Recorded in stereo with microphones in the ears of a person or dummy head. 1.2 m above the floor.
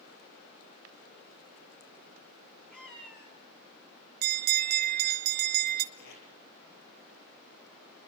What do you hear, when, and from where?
2.7 s a cat meowing: 15° left (ahead or behind), 7 m
4.2 s a bell: 50° right (ahead or behind), 1.4 m
5.9 s tape being pulled: 60° left (ahead or behind), 4.5 m